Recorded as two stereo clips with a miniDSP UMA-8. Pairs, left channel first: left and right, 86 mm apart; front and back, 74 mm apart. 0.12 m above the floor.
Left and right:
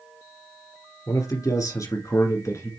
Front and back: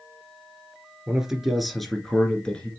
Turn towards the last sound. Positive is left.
turn(degrees=65)